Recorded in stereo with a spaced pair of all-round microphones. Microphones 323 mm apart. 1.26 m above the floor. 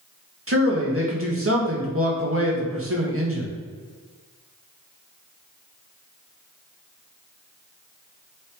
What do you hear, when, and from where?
0.5 s a man speaking: 40° right (ahead or behind), 1.8 m